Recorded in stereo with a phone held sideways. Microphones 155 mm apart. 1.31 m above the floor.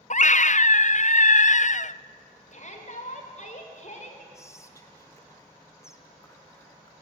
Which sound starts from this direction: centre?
Whispering, at 4.3 s.